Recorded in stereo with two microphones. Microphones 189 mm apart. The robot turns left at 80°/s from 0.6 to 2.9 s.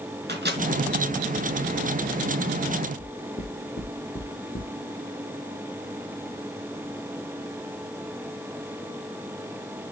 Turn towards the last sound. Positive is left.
turn(degrees=75)  # may be behind; listen again after turning